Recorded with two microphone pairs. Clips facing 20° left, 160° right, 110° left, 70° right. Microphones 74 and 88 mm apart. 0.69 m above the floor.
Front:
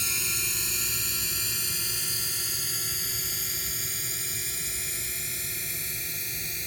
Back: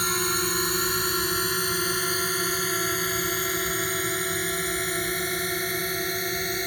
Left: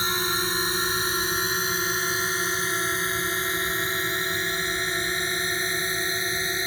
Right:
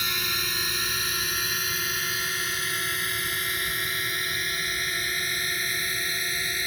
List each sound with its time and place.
0.0 s a drone: 170° left; by 6.7 s 175° left